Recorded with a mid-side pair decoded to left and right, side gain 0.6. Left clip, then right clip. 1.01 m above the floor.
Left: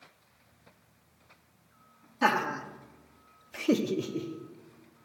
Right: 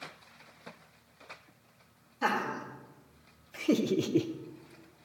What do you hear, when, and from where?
2.2 s laughter: 50° left, 1.9 m; by 4.3 s 75° right, 0.6 m